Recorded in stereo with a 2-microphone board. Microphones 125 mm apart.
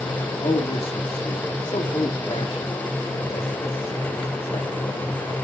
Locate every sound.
0.4 s a man speaking: 50° left (ahead or behind), 2.5 m